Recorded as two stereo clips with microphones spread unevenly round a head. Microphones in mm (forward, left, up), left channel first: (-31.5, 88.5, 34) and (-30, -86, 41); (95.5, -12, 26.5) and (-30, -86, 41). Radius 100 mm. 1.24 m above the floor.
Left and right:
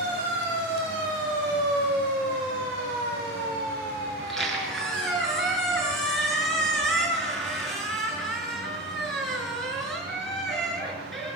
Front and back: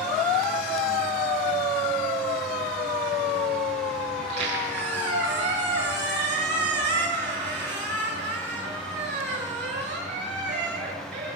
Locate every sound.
4.2 s a squeak: straight behind, 6.5 m